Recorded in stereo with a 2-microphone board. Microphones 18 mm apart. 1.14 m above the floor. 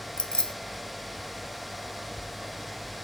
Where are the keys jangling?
70° left (ahead or behind), 0.5 m.